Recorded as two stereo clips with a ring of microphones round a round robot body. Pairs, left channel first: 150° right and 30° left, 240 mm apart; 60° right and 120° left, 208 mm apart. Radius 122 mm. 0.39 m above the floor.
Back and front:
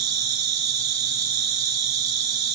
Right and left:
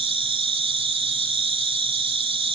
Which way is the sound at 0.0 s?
55° left.